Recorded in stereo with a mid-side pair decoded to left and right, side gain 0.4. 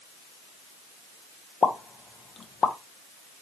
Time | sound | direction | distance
1.6 | a pop | 40° left | 0.6 m